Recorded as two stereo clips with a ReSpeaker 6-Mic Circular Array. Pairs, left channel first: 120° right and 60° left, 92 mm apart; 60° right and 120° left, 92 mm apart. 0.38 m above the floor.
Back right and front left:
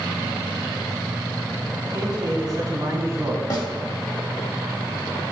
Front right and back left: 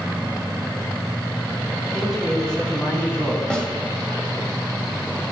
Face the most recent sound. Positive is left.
turn(degrees=-140)